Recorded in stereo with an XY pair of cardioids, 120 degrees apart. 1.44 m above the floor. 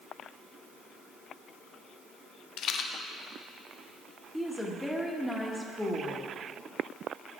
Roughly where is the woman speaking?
Ahead.